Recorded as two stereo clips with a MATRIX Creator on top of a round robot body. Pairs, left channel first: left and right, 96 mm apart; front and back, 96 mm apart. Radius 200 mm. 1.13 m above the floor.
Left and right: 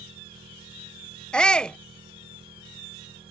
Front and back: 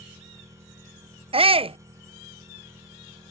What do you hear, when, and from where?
0.0 s an engine running: 120° right
1.3 s a shout: 170° left